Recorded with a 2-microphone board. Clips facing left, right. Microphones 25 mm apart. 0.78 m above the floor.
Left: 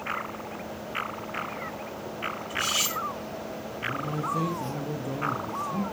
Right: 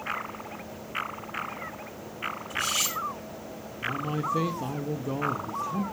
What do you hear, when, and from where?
2.5 s cutlery clinking: 5° left (ahead or behind), 6 m
3.8 s a man speaking: 30° right (ahead or behind), 1.3 m